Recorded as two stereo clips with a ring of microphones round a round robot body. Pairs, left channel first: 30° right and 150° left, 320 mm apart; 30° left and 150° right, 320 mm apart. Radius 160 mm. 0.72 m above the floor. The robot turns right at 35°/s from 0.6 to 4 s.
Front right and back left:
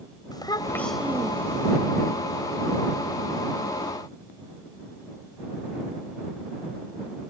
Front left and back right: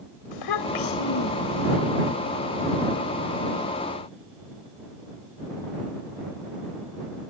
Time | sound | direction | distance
0.3 | a child speaking | 50° left | ?